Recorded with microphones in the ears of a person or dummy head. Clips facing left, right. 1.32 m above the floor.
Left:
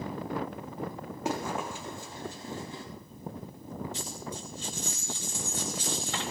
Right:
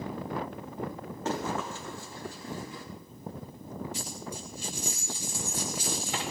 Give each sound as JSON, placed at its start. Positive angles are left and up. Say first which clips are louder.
{"t": 1.2, "sound": "running footsteps", "louder": "even", "side_deg": 15, "distance_m": 5.0}
{"t": 3.9, "sound": "a dropped coin", "louder": "even", "side_deg": -10, "distance_m": 4.0}